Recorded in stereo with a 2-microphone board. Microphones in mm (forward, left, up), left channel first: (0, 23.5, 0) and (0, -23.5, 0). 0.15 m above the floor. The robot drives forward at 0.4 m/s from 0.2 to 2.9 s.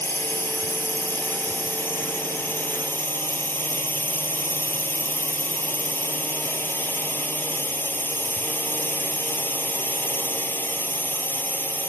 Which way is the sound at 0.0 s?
50° left (ahead or behind).